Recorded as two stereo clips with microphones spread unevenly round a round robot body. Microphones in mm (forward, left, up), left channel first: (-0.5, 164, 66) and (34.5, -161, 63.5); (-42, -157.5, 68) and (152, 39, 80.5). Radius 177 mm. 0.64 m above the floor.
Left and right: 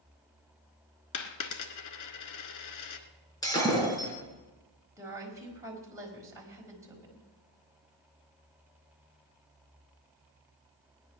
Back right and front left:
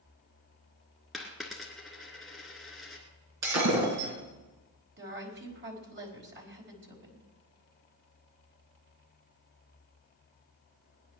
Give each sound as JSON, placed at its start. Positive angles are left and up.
{"t": 1.1, "sound": "a dropped coin", "azimuth_deg": 135, "distance_m": 1.4}
{"t": 3.4, "sound": "breaking glass", "azimuth_deg": 15, "distance_m": 5.5}
{"t": 5.0, "sound": "a woman speaking", "azimuth_deg": -5, "distance_m": 4.5}